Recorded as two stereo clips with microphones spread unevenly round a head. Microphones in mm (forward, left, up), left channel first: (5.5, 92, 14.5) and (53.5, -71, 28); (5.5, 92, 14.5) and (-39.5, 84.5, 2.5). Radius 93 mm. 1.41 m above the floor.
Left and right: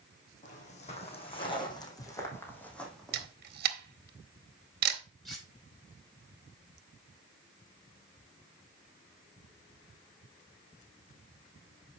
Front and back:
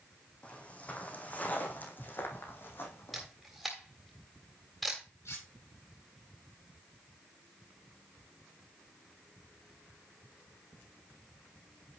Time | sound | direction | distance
0.4 | footsteps | 60° left | 3.5 m
3.1 | a camera shutter | 70° right | 1.5 m
5.2 | cutlery clinking | 15° left | 5.5 m